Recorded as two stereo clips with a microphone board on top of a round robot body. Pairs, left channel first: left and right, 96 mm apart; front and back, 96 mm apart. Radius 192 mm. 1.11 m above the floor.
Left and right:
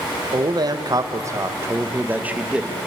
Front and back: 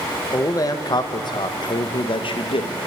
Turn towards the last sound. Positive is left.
turn(degrees=-10)